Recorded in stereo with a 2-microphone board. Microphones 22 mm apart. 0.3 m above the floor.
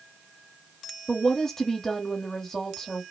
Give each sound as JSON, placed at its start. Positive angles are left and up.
{"t": 1.1, "sound": "a woman speaking", "side_deg": 20, "distance_m": 1.2}